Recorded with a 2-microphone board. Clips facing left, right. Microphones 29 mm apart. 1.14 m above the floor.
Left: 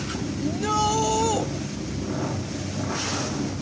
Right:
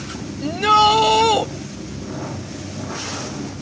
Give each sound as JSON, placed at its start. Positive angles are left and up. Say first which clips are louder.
{"t": 0.4, "sound": "a shout", "louder": "right 10 dB", "side_deg": -65}